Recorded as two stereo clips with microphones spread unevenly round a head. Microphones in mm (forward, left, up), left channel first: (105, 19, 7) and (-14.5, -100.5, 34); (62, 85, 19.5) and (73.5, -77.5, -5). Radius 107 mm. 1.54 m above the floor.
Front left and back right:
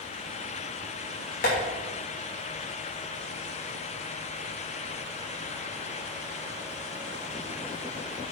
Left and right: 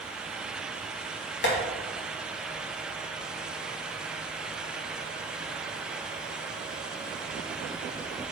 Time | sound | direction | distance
1.4 | tapping | 100° left | 2.5 m